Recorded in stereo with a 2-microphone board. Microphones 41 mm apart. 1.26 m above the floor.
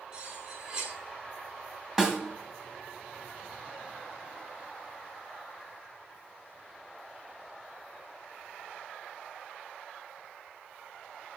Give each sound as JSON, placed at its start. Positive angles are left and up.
{"t": 0.1, "sound": "cutlery clinking", "side_deg": -20, "distance_m": 2.5}
{"t": 2.0, "sound": "a snare drum", "side_deg": -10, "distance_m": 1.5}